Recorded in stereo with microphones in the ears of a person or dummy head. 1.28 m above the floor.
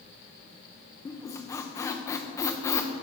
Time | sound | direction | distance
1.1 | a squeak | 15° left (ahead or behind) | 0.5 m